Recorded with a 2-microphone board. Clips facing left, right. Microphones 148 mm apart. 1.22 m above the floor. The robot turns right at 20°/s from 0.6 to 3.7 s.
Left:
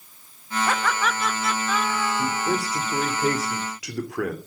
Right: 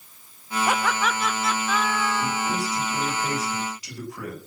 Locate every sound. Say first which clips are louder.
0.7 s laughter: right 1 dB; 15° right, 1.6 m; by 2.6 s 25° left, 1.6 m
2.2 s a man speaking: left 2 dB; 60° left, 3 m; by 4.4 s 90° left, 3 m